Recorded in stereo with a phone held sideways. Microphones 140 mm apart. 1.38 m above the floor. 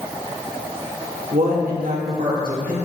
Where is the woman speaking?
85° right, 2.5 m; by 2.8 s 75° right (ahead or behind), 2.5 m.